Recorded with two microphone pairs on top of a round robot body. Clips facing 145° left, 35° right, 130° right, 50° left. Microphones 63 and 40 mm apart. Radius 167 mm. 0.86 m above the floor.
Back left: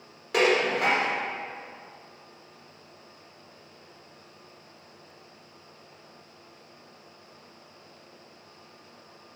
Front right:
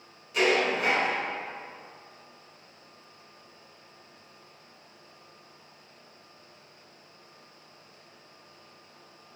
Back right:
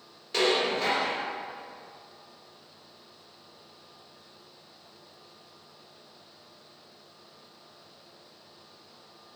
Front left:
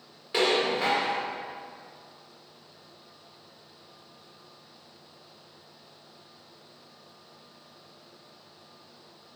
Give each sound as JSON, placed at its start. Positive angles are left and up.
{"t": 0.3, "sound": "dishes clattering", "azimuth_deg": 125, "distance_m": 2.0}